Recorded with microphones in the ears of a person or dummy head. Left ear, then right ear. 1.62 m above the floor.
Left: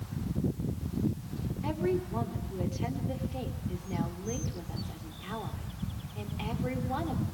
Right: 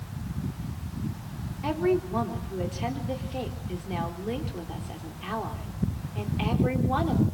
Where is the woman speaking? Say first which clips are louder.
Right 6 dB; 15° right (ahead or behind), 4 m.